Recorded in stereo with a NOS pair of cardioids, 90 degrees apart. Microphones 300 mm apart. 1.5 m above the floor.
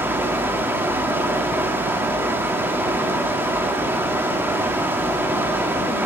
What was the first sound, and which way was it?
Running water, 5° right.